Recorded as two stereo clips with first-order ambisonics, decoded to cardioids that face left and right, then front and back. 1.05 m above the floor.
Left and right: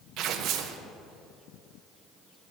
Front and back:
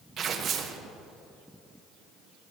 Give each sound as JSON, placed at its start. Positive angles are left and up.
{"t": 0.2, "sound": "tearing paper", "azimuth_deg": -125, "distance_m": 0.6}